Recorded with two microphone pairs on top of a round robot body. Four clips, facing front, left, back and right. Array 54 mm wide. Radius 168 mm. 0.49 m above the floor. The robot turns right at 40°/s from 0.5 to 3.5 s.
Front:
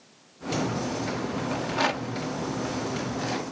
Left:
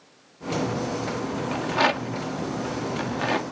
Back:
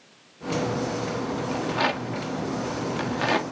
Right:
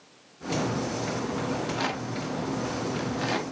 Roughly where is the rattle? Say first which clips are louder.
Left 6 dB, back 1 dB; left.